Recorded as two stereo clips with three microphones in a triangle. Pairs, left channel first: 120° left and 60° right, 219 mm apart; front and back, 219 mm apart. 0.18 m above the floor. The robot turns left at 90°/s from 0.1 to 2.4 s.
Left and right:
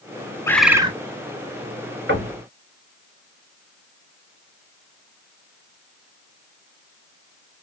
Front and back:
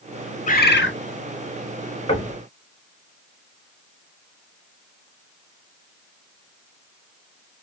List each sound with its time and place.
0.5 s a bird: 45° left, 0.5 m; by 0.9 s straight ahead, 0.5 m
2.1 s knocking: 60° right, 1.4 m; by 2.4 s 90° right, 1.4 m